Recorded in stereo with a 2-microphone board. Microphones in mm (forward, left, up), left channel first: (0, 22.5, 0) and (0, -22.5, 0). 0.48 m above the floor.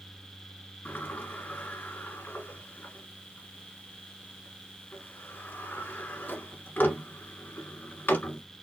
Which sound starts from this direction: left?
A sliding door, at 0.8 s.